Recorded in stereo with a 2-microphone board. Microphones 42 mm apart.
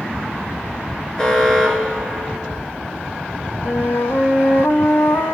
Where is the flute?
65° left (ahead or behind), 1.9 m.